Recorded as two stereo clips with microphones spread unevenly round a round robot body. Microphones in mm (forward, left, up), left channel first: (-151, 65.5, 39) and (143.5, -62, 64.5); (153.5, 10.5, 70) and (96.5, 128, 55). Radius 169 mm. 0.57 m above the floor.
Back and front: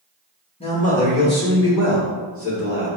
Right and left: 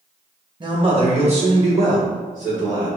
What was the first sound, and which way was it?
A man speaking, 95° left.